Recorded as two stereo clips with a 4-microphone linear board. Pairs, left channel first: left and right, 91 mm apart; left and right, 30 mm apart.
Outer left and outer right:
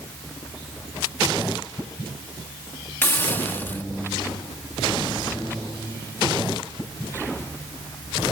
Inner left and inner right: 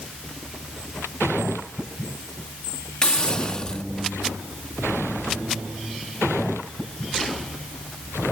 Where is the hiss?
25° left (ahead or behind).